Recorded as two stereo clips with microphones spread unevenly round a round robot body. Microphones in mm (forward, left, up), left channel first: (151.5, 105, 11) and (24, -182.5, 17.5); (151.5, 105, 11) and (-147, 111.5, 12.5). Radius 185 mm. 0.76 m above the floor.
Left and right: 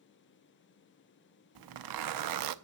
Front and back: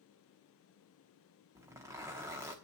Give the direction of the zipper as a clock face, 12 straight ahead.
3 o'clock.